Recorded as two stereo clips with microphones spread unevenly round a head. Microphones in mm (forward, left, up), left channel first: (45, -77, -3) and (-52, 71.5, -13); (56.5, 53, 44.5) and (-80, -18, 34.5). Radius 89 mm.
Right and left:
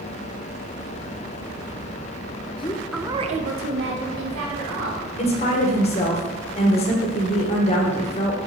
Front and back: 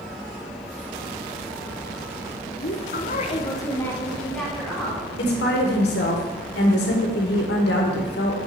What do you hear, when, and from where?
2.6 s a woman speaking: straight ahead, 0.9 m; by 5.0 s 115° left, 2.5 m
5.2 s a woman speaking: straight ahead, 1.7 m